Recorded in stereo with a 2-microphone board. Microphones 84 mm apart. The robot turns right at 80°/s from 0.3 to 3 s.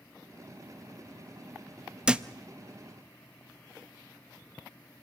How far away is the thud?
About 0.5 m.